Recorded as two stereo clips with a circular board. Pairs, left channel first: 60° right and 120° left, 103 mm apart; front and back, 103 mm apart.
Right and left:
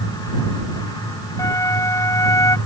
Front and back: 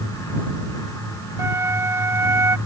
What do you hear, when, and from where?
1.4 s a flute: 120° right